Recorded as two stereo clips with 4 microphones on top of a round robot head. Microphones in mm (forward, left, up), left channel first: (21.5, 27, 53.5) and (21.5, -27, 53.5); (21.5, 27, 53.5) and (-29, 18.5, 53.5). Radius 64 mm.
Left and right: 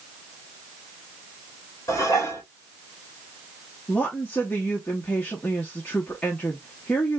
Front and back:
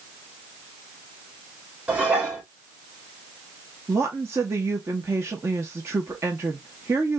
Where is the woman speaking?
155° left, 0.8 m.